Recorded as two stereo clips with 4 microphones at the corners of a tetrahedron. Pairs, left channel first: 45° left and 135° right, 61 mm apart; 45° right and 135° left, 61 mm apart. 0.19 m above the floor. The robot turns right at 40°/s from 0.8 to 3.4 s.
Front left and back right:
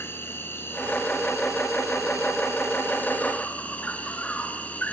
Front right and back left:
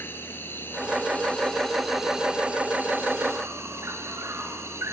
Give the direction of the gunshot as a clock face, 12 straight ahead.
No gunshot in this recording.